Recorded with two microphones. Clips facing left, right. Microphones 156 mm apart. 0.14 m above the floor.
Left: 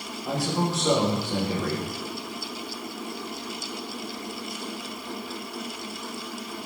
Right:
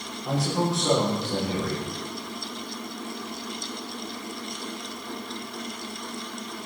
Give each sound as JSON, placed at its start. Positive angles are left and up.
{"t": 0.2, "sound": "a man speaking", "side_deg": 0, "distance_m": 7.5}